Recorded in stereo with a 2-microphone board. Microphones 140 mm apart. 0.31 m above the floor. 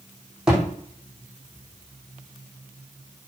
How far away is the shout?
I don't hear a shout.